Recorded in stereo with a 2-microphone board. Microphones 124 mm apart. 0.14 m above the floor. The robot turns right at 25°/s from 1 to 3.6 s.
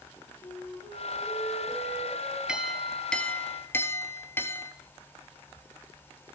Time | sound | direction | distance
0.4 | a flute | 125° left | 5.5 m
2.5 | a clink | 5° right (ahead or behind) | 1.7 m